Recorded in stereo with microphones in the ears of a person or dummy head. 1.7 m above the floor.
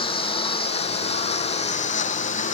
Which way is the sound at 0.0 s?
25° left (ahead or behind).